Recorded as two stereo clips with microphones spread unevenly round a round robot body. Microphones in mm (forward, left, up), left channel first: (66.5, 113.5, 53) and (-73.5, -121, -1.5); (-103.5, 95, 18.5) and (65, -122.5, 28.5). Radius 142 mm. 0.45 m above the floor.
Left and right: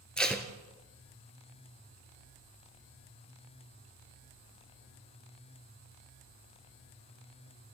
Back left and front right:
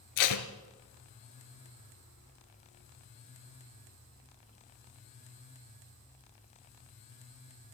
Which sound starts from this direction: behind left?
Tape being pulled, at 0.2 s.